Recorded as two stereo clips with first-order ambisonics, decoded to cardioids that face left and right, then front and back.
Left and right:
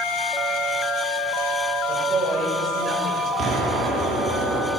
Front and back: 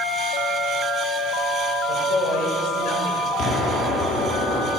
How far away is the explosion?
About 2 m.